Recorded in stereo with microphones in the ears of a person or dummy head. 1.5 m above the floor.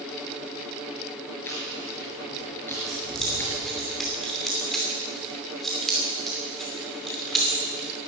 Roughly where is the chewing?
Centre.